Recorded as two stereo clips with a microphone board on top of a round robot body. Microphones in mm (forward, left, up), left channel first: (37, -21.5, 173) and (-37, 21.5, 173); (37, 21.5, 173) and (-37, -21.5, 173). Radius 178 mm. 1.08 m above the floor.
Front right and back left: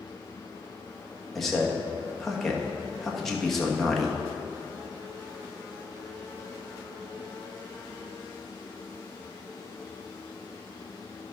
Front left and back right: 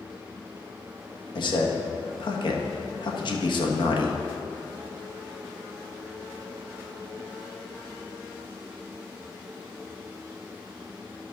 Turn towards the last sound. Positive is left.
turn(degrees=60)